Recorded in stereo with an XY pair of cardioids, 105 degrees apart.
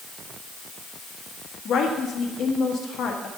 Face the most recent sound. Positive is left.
turn(degrees=65)